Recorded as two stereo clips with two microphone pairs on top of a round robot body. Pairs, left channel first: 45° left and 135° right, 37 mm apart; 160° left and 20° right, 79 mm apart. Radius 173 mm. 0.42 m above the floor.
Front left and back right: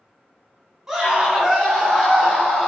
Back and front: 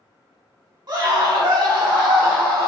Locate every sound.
0.9 s a scream: 55° right, 3 m; by 2.7 s 35° right, 3.5 m